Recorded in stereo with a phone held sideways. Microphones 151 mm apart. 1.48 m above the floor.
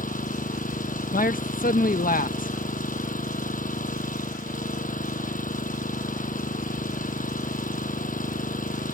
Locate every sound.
0.0 s an engine running: 65° left (ahead or behind)
1.1 s a man speaking: 70° left (ahead or behind)